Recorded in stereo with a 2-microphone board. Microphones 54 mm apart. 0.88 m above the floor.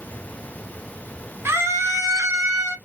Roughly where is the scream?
Right.